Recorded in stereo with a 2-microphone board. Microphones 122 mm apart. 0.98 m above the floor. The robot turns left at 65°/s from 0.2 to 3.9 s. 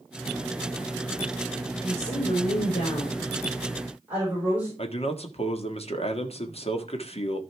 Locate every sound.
1.8 s a woman speaking: 120° left, 5 m; by 4.7 s 15° right, 5 m
4.8 s a man speaking: 50° left (ahead or behind), 1.5 m